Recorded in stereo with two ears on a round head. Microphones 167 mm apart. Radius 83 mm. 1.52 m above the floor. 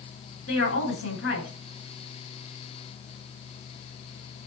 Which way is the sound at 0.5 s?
75° left (ahead or behind).